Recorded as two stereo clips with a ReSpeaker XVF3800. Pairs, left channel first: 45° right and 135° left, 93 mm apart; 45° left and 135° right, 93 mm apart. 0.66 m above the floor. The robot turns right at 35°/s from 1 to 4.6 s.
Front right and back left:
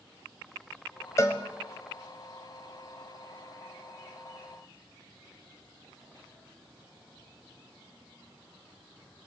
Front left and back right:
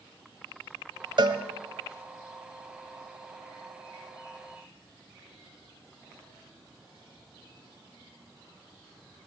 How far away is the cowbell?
About 1.2 m.